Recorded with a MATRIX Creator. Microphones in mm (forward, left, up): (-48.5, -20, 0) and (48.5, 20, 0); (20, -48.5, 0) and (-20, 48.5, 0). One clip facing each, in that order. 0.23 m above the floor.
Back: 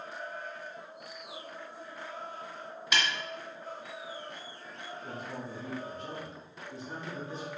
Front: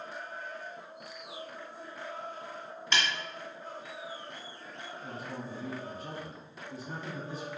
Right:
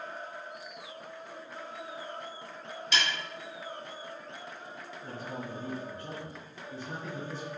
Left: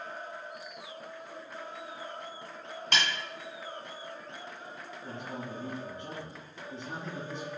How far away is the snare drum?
About 1.6 m.